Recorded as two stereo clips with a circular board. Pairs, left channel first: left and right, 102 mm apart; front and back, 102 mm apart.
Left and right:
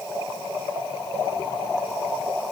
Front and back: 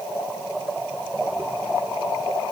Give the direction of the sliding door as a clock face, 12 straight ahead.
I don't hear a sliding door.